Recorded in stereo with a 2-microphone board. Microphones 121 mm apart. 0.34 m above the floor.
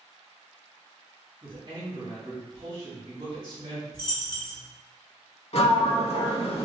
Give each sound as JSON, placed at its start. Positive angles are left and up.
{"t": 1.4, "sound": "a man speaking", "side_deg": -40, "distance_m": 1.6}
{"t": 3.9, "sound": "a dropped coin", "side_deg": 40, "distance_m": 0.9}
{"t": 5.5, "sound": "a sliding door", "side_deg": 55, "distance_m": 0.6}